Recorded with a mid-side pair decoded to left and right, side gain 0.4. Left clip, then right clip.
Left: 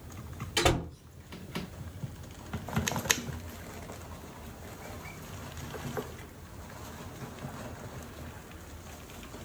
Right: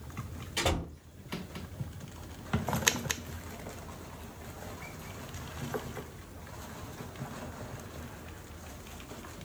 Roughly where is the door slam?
Left.